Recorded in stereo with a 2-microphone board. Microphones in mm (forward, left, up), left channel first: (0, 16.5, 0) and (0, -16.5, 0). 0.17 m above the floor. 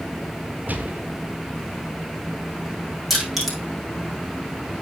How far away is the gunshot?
About 1.3 m.